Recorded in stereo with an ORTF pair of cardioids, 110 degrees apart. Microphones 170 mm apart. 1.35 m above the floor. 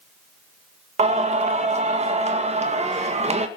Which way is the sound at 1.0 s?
40° right.